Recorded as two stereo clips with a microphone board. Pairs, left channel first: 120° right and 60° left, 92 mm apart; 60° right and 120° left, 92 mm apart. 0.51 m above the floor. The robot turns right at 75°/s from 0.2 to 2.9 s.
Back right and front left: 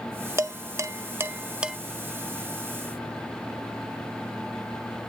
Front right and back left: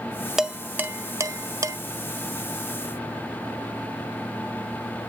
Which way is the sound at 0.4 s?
35° left.